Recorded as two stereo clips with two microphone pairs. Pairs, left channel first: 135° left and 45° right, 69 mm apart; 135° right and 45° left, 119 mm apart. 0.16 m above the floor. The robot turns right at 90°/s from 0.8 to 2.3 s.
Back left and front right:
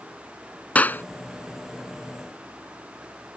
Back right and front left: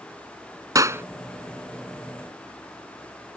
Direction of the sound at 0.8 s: 85° left.